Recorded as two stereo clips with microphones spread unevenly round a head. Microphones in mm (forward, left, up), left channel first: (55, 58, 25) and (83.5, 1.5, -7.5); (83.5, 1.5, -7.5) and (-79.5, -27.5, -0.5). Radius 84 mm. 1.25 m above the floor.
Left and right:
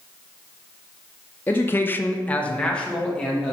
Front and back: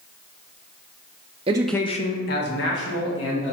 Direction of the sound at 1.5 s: 150° right.